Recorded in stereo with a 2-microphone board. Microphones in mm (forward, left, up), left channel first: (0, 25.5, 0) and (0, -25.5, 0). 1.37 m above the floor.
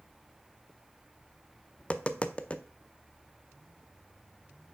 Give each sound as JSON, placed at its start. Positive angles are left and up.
{"t": 1.8, "sound": "tapping", "side_deg": 25, "distance_m": 0.5}